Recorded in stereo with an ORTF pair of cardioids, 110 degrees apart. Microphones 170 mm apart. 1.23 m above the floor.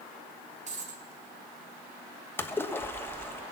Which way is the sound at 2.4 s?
15° left.